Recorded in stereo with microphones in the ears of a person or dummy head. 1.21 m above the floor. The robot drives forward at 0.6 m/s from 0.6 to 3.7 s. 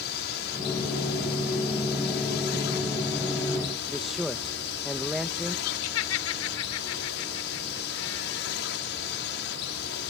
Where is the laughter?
80° left.